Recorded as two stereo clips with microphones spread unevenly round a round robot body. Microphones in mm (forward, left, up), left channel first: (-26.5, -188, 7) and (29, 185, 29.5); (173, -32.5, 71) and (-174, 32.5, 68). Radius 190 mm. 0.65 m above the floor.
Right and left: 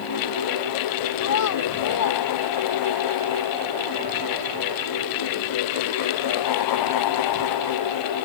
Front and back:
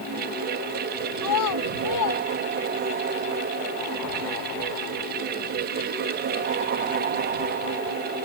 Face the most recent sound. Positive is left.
turn(degrees=-50)